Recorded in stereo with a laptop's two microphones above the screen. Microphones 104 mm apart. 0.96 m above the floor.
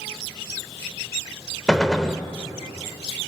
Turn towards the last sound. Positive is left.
turn(degrees=5)  # may be behind; listen again after turning